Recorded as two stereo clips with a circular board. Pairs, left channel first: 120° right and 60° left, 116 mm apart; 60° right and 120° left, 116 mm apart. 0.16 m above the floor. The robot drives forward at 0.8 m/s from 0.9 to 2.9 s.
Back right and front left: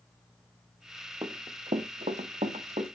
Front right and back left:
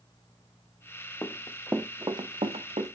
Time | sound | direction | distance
1.2 | running footsteps | 10° left | 1.4 m